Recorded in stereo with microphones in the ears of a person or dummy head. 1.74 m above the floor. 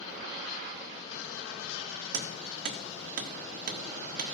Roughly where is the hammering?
Right.